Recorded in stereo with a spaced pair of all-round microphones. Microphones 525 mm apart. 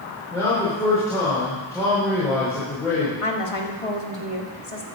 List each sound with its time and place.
0.3 s a man speaking: 5° left (ahead or behind), 4.5 m
3.2 s a woman speaking: 80° left, 1.7 m